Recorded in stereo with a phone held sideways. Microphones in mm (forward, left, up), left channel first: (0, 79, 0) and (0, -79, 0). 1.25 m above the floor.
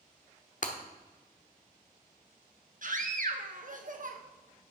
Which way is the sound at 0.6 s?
55° left (ahead or behind).